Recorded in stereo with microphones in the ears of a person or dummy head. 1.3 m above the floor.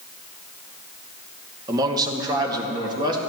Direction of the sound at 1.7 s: 15° right (ahead or behind).